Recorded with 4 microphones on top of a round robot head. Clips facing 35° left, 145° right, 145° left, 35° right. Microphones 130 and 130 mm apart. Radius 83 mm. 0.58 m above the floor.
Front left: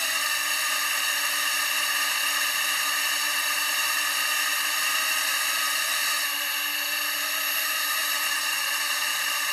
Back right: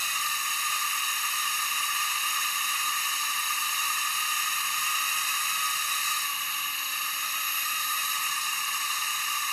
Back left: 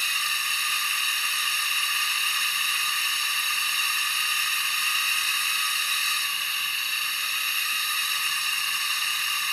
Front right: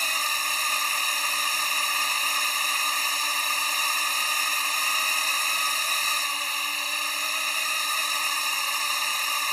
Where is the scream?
No scream in this recording.